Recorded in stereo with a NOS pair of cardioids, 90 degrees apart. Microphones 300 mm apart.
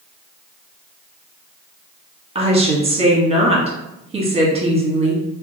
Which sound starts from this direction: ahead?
A woman speaking, at 2.4 s.